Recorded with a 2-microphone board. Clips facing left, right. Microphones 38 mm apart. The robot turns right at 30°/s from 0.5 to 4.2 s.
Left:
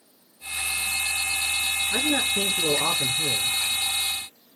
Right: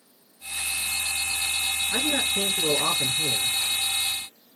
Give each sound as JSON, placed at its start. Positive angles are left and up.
{"t": 1.9, "sound": "a man speaking", "azimuth_deg": 135, "distance_m": 1.2}